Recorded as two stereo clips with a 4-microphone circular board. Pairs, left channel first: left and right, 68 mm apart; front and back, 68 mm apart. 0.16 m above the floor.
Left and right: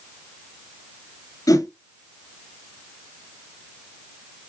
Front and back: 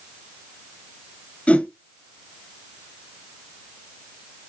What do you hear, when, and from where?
1.5 s a whoosh: 70° left, 0.7 m